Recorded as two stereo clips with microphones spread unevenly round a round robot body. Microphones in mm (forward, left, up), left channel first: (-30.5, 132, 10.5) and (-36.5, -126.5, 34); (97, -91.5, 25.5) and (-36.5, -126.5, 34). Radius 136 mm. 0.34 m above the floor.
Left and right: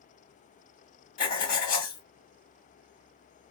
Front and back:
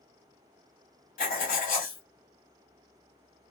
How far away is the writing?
About 0.8 m.